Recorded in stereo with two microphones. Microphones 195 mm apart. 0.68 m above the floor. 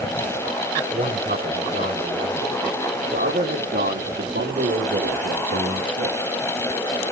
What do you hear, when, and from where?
0.9 s a man speaking: 60° right (ahead or behind), 6 m; by 6.2 s 75° right (ahead or behind), 5 m